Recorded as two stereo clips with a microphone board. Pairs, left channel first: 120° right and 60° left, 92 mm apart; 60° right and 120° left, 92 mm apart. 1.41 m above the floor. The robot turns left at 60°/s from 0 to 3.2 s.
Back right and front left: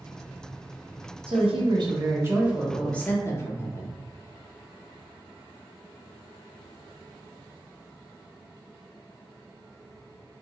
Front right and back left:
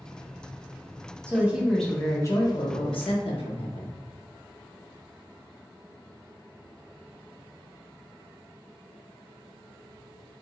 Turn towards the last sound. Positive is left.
turn(degrees=-60)